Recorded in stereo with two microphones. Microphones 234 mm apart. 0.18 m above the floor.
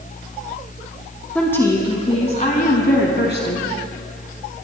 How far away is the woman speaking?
About 1.3 m.